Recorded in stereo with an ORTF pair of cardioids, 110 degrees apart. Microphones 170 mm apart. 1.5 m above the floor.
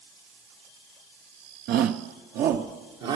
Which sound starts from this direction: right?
A shout, at 1.7 s.